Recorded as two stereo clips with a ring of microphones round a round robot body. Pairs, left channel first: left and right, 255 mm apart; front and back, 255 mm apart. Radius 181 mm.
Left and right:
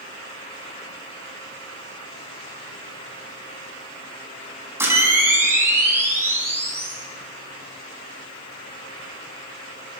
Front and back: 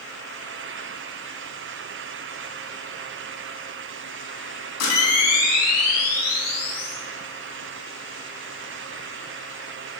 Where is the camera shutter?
10° right, 3.5 m.